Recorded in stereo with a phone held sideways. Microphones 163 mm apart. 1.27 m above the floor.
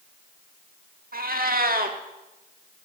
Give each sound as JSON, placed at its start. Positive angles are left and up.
{"t": 1.1, "sound": "a cat meowing", "side_deg": -65, "distance_m": 1.4}